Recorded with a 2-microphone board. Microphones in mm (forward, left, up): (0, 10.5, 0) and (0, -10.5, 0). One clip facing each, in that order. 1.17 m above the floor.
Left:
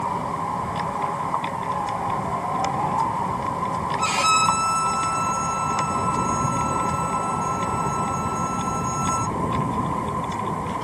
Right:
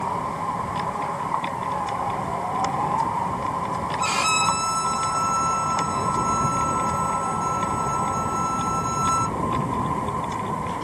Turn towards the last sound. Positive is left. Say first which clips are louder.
# left 2 dB
turn(degrees=15)  # may be behind; listen again after turning